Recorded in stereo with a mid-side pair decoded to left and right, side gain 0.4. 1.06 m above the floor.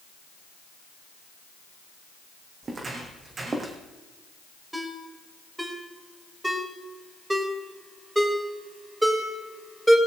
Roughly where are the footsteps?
Ahead right.